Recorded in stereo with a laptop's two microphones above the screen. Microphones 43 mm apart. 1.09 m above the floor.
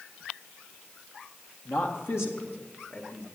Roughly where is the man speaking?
Left.